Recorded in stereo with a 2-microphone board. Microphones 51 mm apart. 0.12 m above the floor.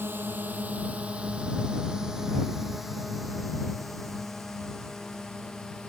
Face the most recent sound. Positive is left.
turn(degrees=10)  # may be behind; listen again after turning